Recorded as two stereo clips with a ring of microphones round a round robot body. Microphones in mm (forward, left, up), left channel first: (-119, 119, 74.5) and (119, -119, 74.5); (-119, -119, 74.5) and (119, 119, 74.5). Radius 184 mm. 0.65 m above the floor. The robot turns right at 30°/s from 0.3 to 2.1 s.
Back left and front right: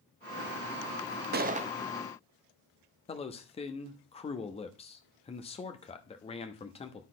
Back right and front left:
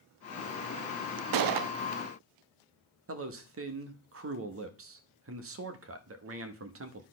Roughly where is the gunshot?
Ahead.